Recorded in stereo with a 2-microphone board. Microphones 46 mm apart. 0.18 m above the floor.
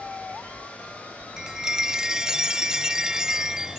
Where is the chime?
15° right (ahead or behind).